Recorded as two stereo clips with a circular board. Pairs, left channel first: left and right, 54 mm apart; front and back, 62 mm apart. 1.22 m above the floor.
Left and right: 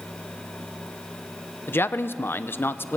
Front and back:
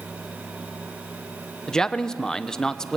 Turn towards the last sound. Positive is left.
turn(degrees=75)